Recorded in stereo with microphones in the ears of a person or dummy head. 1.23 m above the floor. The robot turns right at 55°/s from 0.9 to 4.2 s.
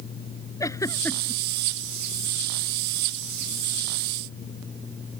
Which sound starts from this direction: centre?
A giggle, at 0.6 s.